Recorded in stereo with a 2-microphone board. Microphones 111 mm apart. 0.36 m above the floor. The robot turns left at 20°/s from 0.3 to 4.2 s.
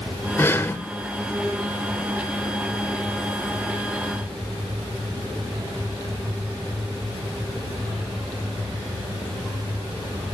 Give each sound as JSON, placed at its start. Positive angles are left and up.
{"t": 0.4, "sound": "breathing", "side_deg": 20, "distance_m": 1.0}